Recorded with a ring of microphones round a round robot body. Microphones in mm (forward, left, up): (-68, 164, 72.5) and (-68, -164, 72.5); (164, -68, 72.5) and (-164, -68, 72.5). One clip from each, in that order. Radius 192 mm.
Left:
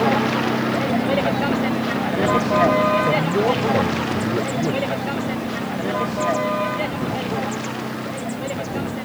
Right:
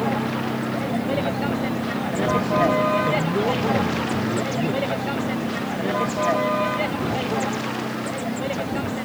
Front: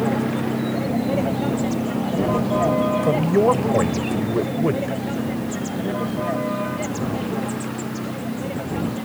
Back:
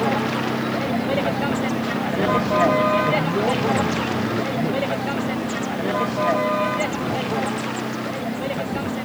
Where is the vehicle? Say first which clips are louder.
Left 6 dB, back 2 dB; 130° left; by 9.1 s 160° right.